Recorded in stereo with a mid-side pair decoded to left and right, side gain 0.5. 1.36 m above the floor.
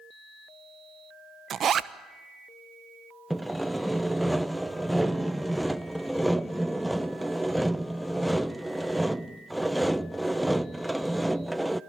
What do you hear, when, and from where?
1.5 s a zipper: 45° right, 1.1 m
3.3 s sawing: 5° right, 0.7 m